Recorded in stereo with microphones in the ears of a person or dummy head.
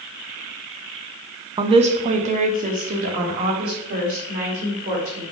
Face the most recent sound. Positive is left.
turn(degrees=-45)  # may be behind; listen again after turning